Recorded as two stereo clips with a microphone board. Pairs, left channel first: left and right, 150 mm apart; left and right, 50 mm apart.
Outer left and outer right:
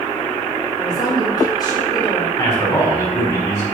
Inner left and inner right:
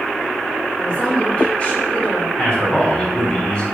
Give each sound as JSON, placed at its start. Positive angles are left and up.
{"t": 0.8, "sound": "a woman speaking", "side_deg": 30, "distance_m": 2.0}
{"t": 2.4, "sound": "a man speaking", "side_deg": 25, "distance_m": 3.0}